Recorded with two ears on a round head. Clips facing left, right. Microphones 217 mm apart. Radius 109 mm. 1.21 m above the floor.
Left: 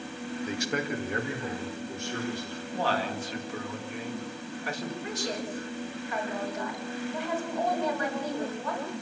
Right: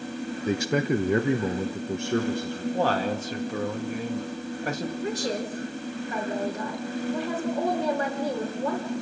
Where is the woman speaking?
30° right (ahead or behind), 4 m.